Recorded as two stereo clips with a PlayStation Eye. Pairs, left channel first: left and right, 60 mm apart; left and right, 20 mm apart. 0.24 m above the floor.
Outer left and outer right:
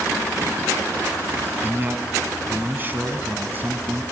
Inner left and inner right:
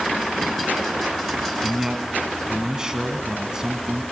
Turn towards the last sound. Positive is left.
turn(degrees=-35)  # may be behind; listen again after turning